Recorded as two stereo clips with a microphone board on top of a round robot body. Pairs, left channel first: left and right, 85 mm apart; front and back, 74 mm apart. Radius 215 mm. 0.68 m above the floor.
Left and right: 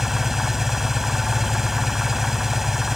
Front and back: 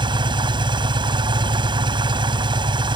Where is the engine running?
175° right.